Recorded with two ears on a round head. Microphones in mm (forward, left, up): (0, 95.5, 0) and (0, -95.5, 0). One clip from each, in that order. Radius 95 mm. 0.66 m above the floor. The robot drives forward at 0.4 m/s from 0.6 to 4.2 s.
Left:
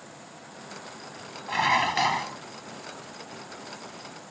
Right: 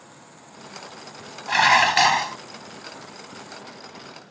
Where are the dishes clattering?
50° right (ahead or behind); by 2.4 s 45° right (ahead or behind).